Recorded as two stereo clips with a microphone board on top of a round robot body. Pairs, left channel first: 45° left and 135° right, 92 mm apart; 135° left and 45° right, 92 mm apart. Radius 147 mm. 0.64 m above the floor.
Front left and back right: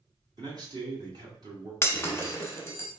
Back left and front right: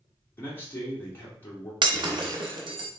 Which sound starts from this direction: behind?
A man speaking, at 0.4 s.